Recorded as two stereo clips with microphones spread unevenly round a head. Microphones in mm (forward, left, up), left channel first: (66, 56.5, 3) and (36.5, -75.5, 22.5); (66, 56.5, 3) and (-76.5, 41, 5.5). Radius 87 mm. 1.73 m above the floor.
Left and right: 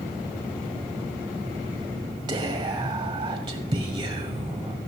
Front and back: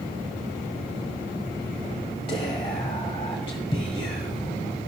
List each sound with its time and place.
2.3 s whispering: 50° right, 1.0 m